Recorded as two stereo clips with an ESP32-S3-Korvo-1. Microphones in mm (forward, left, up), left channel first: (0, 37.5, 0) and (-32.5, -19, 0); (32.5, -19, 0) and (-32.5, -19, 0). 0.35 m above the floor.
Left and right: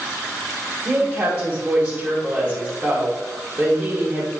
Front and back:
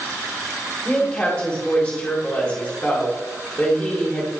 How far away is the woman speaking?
About 1.8 m.